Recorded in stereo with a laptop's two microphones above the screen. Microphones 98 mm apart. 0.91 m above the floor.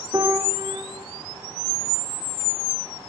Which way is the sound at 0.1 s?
35° right (ahead or behind).